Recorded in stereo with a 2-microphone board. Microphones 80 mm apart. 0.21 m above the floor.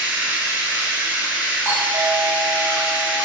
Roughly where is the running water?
Right.